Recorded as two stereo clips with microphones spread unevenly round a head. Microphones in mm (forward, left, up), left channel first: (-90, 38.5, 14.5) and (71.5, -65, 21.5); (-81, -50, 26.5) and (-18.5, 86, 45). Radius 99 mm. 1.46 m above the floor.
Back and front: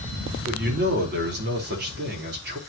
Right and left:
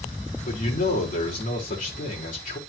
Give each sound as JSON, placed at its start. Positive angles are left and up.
{"t": 0.5, "sound": "a man speaking", "azimuth_deg": -70, "distance_m": 4.0}